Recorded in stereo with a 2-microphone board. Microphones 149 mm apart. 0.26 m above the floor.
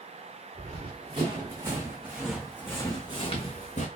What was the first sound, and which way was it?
Running footsteps, 45° right (ahead or behind).